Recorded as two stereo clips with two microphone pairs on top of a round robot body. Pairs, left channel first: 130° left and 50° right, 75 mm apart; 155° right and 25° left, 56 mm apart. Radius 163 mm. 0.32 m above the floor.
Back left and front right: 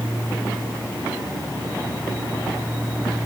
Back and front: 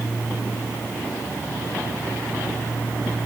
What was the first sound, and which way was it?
Only background noise.